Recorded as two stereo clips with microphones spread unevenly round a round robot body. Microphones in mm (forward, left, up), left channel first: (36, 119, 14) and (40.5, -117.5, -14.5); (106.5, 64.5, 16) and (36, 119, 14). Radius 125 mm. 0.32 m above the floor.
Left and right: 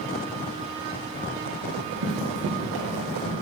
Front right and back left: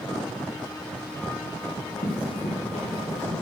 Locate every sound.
1.6 s running footsteps: 70° right, 3.5 m; by 3.3 s 40° right, 4 m